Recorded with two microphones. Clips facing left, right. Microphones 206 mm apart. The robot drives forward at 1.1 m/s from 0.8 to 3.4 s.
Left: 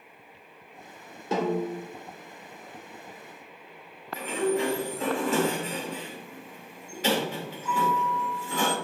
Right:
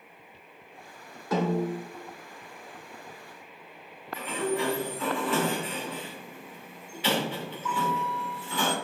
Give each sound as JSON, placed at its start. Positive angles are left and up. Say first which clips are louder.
{"t": 1.3, "sound": "a snare drum", "louder": "even", "side_deg": 25, "distance_m": 3.0}
{"t": 4.1, "sound": "a sliding door", "louder": "left 3 dB", "side_deg": 45, "distance_m": 2.5}